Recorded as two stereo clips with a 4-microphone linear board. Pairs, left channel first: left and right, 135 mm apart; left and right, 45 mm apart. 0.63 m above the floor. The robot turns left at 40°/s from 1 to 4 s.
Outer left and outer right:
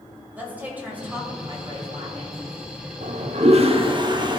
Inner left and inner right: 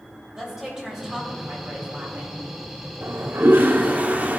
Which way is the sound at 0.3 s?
15° right.